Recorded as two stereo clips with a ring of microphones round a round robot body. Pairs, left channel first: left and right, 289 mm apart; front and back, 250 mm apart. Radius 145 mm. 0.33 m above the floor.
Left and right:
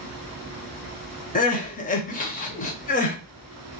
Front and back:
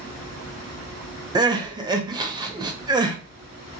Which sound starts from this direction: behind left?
Crying, at 1.4 s.